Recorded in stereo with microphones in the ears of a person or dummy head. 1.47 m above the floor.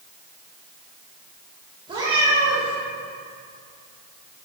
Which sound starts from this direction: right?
A cat meowing, at 1.9 s.